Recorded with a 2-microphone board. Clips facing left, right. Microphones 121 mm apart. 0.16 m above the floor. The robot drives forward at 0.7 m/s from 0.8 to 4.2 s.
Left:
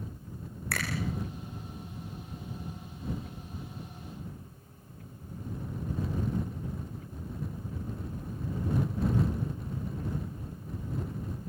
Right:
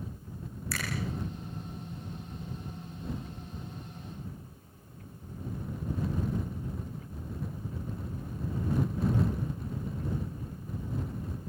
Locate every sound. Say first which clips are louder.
0.7 s a finger snap: left 3 dB; 70° left (ahead or behind), 9 m